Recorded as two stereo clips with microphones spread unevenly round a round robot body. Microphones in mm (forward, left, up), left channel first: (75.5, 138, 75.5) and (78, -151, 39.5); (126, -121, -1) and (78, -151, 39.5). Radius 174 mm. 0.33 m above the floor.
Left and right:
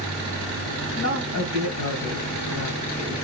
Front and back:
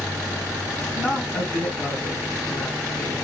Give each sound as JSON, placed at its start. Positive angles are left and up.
{"t": 0.9, "sound": "a woman speaking", "azimuth_deg": 75, "distance_m": 2.0}